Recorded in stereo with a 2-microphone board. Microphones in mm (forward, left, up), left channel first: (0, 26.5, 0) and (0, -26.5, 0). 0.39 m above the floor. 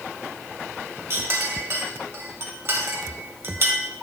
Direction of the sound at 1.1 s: 50° right (ahead or behind).